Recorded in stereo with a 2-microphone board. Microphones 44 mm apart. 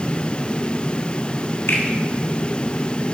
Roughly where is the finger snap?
Left.